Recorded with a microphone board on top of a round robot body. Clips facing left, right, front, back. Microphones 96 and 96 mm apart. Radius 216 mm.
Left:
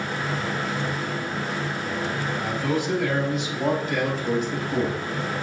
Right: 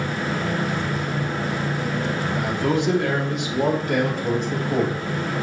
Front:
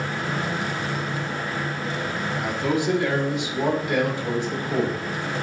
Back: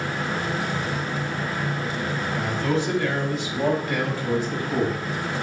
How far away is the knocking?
I don't hear knocking.